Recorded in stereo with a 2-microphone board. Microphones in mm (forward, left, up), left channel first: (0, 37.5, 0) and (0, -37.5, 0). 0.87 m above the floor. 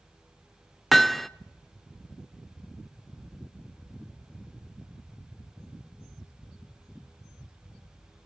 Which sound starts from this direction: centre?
Hammering, at 0.9 s.